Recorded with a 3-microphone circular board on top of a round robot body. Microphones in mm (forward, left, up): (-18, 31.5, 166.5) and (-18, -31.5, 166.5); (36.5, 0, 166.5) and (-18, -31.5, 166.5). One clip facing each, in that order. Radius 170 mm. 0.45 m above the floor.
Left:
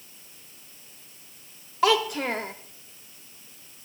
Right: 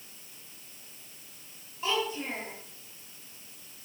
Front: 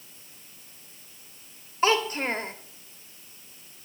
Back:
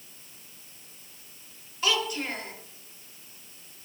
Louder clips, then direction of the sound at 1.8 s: Left 9 dB, front 5 dB; 85° left.